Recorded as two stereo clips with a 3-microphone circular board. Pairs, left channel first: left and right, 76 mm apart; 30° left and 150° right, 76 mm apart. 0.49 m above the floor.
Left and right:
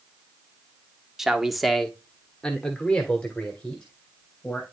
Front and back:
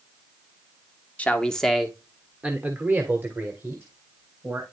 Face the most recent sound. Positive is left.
turn(degrees=165)